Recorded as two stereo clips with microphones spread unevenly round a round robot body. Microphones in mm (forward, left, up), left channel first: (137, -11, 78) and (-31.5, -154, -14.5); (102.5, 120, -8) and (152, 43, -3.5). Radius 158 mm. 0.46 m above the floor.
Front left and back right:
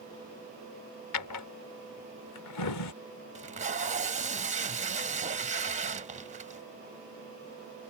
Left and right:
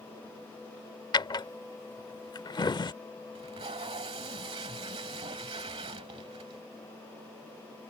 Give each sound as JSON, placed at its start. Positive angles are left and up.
{"t": 1.1, "sound": "a drawer", "azimuth_deg": 80}
{"t": 3.4, "sound": "tape being pulled", "azimuth_deg": -95}